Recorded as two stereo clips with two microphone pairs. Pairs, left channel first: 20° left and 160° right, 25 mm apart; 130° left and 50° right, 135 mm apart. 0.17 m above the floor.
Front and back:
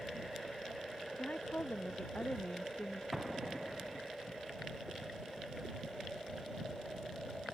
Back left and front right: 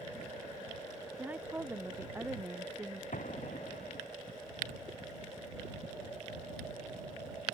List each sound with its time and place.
1.2 s a woman speaking: 30° left
3.1 s an explosion: 120° left